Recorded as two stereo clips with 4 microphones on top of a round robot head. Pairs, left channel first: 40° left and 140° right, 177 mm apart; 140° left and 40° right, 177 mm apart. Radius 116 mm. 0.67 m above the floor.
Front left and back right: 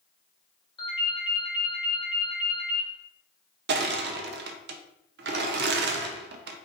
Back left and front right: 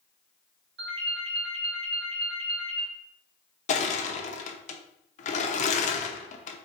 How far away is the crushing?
About 0.5 m.